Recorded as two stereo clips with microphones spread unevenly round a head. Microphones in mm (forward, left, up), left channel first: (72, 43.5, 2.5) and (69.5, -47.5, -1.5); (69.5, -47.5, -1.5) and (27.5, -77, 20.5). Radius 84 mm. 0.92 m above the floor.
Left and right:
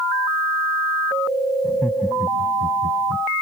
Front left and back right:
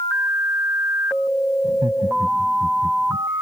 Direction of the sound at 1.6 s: 175° left.